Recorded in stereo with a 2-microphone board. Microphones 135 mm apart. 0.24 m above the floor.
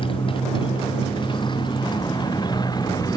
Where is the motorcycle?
40° left (ahead or behind); by 3.2 s 25° left (ahead or behind).